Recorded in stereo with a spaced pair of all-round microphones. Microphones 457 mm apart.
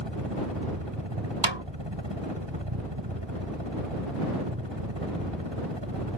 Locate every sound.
0.0 s a helicopter: 65° right (ahead or behind)
1.4 s a snare drum: 75° right (ahead or behind)